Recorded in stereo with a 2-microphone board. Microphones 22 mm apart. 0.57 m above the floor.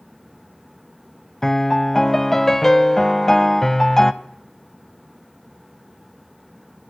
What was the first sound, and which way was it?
A piano, 15° left (ahead or behind).